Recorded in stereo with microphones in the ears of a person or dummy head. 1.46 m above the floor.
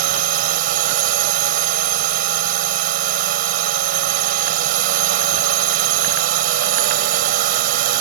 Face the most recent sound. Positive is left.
turn(degrees=-55)  # may be behind; listen again after turning